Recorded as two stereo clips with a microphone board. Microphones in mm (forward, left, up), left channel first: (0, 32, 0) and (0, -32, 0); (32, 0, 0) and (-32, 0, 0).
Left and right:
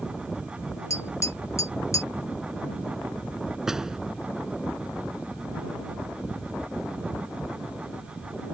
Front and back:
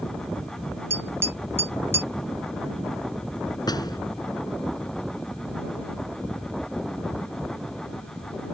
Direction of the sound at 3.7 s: 10° right.